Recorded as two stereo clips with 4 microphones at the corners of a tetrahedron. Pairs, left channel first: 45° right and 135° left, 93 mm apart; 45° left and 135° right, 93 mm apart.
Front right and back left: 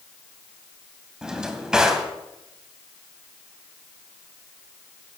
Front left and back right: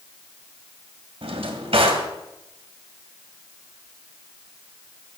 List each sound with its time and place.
1.2 s a drawer: 145° right, 1.8 m